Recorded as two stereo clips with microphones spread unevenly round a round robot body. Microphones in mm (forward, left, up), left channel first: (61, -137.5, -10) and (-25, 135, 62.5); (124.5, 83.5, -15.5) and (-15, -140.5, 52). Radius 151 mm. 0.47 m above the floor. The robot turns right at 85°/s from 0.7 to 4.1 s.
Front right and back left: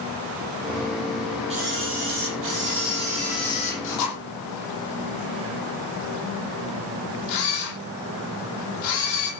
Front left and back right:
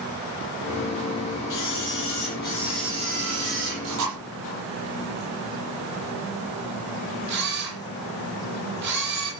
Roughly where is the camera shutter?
Ahead left.